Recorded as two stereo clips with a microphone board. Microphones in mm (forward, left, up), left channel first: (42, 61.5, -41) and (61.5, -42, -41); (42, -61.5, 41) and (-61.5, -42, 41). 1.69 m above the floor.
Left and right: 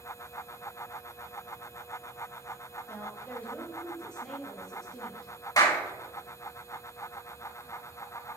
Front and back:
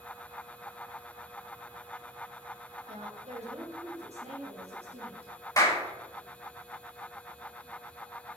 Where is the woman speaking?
175° left, 1.5 m; by 5.3 s 170° right, 4 m.